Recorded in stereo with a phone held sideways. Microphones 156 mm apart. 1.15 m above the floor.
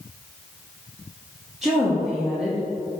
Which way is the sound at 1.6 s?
5° right (ahead or behind).